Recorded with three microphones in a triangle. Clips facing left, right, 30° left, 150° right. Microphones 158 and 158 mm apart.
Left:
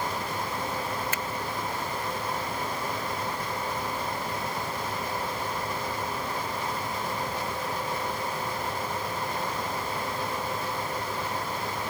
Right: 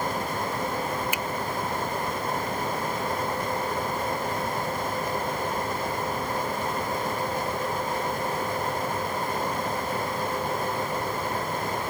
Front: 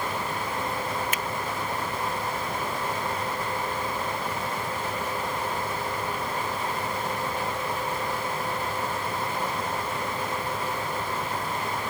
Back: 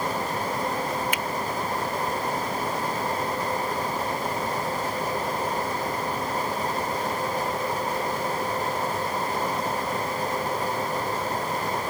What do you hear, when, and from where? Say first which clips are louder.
1.1 s a finger snap: right 2 dB, back 2 dB; 15° right